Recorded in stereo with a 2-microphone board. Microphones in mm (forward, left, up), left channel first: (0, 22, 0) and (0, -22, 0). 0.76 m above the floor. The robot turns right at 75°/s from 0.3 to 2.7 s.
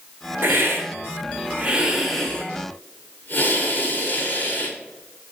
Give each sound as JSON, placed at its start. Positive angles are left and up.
{"t": 0.4, "sound": "a hiss", "azimuth_deg": -125, "distance_m": 0.8}